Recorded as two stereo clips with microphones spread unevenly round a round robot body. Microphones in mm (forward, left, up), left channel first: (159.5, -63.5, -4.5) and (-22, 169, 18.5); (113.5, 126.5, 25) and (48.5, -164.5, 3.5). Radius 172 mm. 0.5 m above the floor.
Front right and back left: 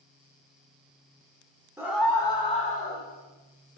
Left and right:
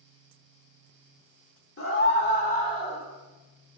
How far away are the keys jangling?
I don't hear keys jangling.